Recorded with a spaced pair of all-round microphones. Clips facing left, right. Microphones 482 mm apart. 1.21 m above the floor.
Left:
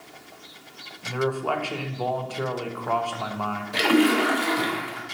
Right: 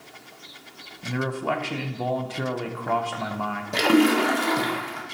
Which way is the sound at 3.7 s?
60° right (ahead or behind).